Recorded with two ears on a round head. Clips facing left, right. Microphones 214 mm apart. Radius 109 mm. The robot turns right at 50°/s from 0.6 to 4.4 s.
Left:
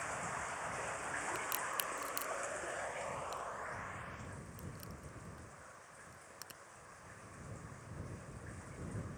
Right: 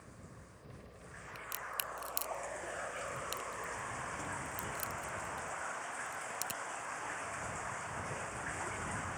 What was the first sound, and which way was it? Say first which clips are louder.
Running water: left 9 dB; 75° left.